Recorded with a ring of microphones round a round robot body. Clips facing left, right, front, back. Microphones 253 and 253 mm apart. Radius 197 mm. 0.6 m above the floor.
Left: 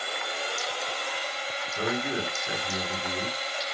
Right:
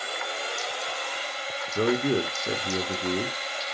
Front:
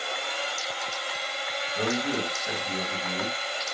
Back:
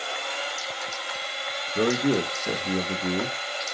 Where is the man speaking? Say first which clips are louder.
Right 7 dB, back 6 dB; 140° right, 1.6 m.